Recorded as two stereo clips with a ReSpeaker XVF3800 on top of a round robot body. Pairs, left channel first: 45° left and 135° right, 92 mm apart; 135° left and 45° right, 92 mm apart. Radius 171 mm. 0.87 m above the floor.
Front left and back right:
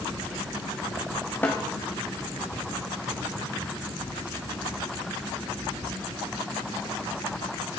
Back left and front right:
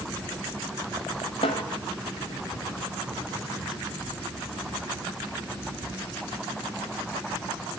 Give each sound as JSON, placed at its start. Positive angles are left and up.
{"t": 1.4, "sound": "a snare drum", "azimuth_deg": 115, "distance_m": 0.8}